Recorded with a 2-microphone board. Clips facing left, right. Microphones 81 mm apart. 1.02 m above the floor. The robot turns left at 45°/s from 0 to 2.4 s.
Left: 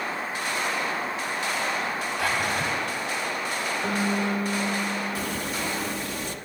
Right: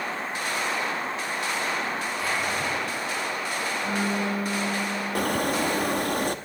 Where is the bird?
55° right (ahead or behind), 0.7 m.